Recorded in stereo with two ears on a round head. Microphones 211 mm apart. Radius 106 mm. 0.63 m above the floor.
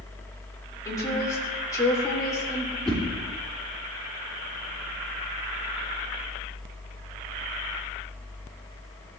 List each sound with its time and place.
0.8 s a woman speaking: 15° left (ahead or behind), 2 m
2.9 s a whoosh: 5° left (ahead or behind), 3 m